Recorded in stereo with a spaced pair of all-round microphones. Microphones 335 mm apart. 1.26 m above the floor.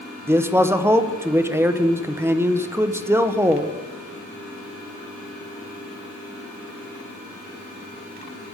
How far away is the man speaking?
About 0.5 m.